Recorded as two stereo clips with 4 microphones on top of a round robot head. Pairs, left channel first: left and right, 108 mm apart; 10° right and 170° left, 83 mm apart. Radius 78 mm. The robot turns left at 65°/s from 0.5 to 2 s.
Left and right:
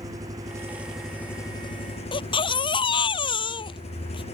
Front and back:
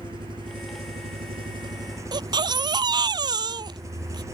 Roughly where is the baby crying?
Behind left.